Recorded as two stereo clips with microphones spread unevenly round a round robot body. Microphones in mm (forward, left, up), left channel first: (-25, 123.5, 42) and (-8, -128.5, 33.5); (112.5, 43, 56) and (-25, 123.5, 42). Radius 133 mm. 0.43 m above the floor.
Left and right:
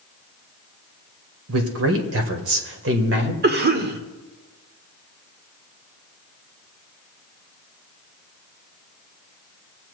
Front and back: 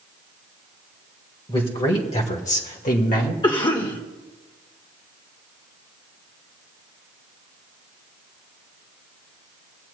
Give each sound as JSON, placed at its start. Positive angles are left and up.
{"t": 1.5, "sound": "a man speaking", "azimuth_deg": -95, "distance_m": 1.9}
{"t": 3.4, "sound": "a cough", "azimuth_deg": -85, "distance_m": 1.2}